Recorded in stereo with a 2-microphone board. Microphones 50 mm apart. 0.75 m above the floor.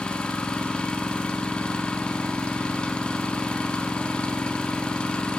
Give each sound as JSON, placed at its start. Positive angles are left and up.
{"t": 0.0, "sound": "an engine running", "side_deg": 20, "distance_m": 1.2}